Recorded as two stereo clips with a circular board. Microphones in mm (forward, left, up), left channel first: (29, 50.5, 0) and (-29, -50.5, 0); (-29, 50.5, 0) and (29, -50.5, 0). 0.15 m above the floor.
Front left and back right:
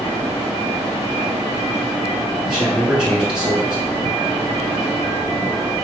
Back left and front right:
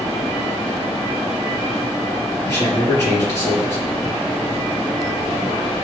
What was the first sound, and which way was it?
A man speaking, 160° left.